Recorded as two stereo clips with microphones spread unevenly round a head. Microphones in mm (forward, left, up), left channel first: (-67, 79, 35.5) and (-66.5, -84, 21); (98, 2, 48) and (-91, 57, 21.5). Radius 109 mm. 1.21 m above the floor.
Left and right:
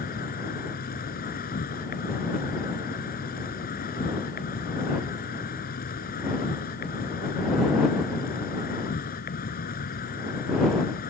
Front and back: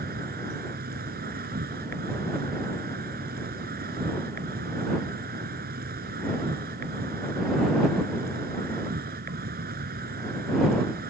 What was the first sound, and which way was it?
An insect, 120° left.